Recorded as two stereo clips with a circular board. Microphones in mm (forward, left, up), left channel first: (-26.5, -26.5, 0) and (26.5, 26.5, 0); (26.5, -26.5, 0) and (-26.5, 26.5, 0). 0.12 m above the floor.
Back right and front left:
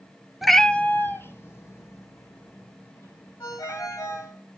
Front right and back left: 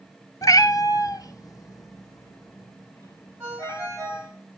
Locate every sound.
0.4 s a cat meowing: 40° right, 0.6 m; by 4.3 s 90° right, 5 m
3.4 s a ringtone: 165° right, 7 m